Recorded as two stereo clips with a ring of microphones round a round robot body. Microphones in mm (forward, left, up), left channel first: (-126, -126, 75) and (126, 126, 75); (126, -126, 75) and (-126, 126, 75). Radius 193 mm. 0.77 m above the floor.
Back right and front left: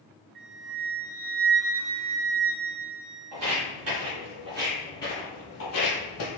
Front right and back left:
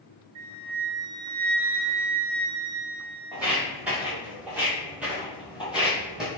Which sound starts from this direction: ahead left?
Footsteps, at 3.3 s.